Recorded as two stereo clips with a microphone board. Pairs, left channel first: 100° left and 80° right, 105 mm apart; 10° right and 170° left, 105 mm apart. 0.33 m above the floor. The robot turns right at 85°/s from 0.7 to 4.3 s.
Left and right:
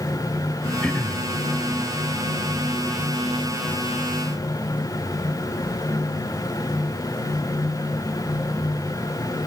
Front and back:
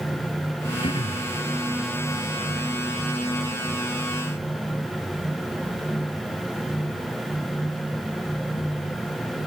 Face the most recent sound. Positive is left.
turn(degrees=-50)